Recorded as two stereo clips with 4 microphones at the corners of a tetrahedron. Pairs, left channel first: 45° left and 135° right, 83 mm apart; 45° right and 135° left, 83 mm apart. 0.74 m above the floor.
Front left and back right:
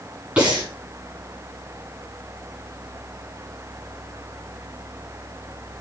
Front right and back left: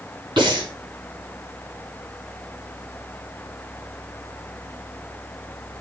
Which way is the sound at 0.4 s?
150° left.